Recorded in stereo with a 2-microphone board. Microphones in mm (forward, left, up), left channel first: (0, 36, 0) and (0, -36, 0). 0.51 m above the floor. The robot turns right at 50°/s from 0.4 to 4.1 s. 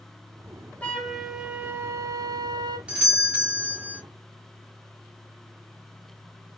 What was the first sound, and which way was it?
A flute, 165° left.